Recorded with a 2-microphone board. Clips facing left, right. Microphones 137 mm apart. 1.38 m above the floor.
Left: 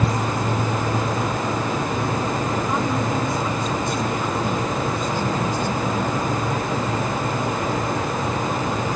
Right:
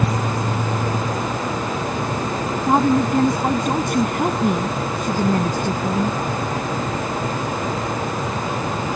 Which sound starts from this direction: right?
A woman speaking, at 2.7 s.